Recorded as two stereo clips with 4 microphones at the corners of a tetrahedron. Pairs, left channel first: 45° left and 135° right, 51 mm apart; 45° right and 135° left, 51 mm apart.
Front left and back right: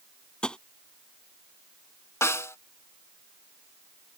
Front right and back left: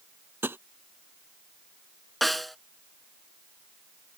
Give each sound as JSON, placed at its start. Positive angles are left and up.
{"t": 0.4, "sound": "tapping", "azimuth_deg": 115}
{"t": 2.2, "sound": "a snare drum", "azimuth_deg": 45}